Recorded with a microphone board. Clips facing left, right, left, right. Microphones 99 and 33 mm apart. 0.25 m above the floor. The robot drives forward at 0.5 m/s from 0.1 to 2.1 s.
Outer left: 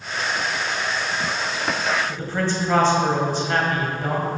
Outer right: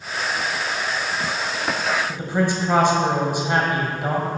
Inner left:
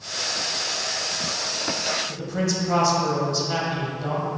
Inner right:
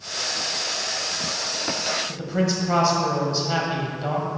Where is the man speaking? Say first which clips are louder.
Outer right 2 dB, inner right 2 dB; 15° right (ahead or behind), 1.2 m.